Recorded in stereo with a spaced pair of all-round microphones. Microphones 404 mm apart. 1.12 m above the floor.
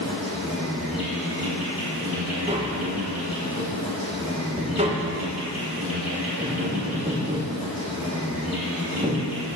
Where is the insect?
15° left (ahead or behind), 3 m.